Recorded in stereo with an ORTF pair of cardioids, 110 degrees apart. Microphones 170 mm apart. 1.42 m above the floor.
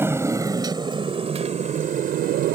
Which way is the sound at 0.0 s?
15° right.